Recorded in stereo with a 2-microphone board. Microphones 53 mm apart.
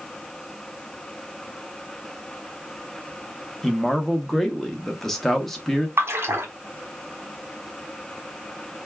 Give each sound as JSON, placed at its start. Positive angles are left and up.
{"t": 3.6, "sound": "a man speaking", "side_deg": 5, "distance_m": 0.8}
{"t": 6.0, "sound": "a splash", "side_deg": -50, "distance_m": 1.0}